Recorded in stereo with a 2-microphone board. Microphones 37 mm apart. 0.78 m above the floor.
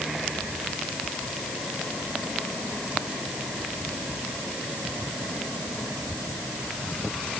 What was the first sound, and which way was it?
Only background noise.